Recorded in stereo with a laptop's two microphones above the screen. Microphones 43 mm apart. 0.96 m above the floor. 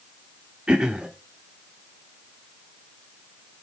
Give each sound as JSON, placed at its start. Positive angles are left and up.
{"t": 0.7, "sound": "throat clearing", "side_deg": -20, "distance_m": 1.2}